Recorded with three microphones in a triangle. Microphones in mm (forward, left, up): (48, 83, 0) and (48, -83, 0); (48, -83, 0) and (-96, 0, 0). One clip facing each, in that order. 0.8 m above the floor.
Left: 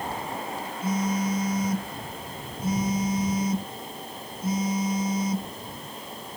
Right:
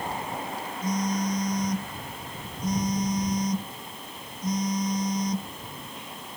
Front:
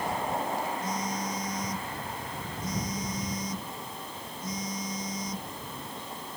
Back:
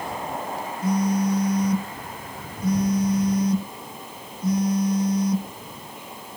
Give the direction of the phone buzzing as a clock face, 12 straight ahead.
6 o'clock.